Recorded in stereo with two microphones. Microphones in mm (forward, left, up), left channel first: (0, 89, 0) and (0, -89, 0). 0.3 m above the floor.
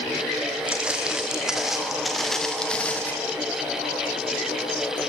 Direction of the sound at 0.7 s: 5° right (ahead or behind).